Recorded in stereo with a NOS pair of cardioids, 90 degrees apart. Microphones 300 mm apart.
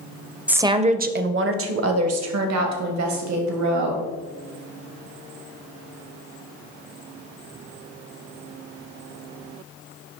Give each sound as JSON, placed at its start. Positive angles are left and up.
{"t": 0.5, "sound": "a woman speaking", "azimuth_deg": -5, "distance_m": 0.6}